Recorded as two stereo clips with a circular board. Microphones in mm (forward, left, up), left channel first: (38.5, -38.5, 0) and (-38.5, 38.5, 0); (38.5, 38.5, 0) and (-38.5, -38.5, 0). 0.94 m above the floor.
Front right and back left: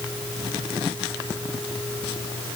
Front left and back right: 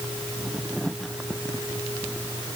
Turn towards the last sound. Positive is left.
No sound to turn to.